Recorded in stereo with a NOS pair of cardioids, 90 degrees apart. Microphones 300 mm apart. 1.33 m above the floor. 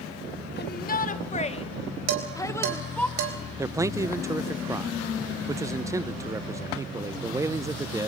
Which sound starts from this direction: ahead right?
Dishes clattering, at 2.1 s.